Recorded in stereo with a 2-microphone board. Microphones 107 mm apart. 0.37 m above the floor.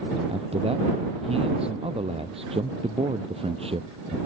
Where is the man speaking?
65° right (ahead or behind).